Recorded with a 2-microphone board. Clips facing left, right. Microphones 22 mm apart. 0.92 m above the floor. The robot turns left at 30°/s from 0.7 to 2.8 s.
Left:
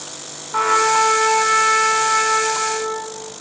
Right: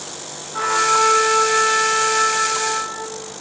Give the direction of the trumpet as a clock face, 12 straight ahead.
10 o'clock.